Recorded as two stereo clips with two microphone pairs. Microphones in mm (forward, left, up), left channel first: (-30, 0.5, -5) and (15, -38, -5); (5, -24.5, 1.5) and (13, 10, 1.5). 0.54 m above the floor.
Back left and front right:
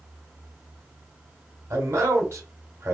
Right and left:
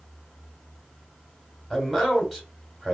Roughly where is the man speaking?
Ahead.